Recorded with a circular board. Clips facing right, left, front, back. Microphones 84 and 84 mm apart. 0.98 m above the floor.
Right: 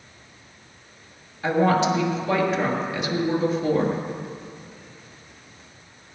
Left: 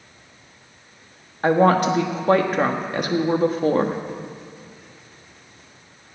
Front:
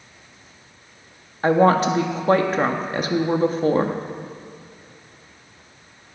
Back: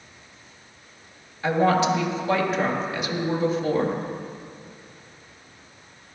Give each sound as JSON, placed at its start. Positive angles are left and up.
{"t": 1.4, "sound": "a woman speaking", "azimuth_deg": 50, "distance_m": 1.2}